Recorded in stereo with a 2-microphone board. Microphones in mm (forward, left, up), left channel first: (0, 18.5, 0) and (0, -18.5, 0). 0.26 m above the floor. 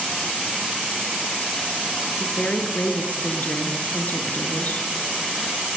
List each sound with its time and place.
2.2 s a woman speaking: 40° left (ahead or behind), 4.5 m